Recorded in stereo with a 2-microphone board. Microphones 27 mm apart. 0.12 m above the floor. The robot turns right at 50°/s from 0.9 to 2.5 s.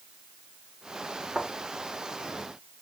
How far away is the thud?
About 5.5 m.